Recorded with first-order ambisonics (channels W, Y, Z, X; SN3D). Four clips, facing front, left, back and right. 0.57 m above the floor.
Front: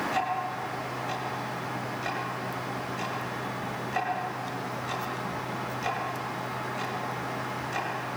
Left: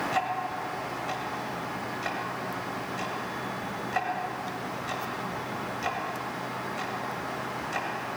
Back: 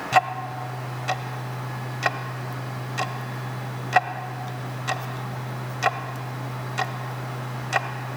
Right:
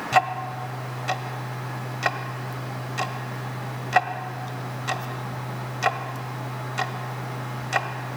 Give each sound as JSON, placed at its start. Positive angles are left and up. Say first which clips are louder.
{"t": 0.1, "sound": "ticking", "louder": "right 7 dB, back 7 dB", "azimuth_deg": -145, "distance_m": 1.4}